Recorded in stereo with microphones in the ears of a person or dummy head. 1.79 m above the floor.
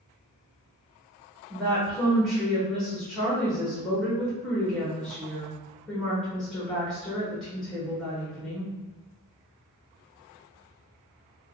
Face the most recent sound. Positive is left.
turn(degrees=5)  # may be behind; listen again after turning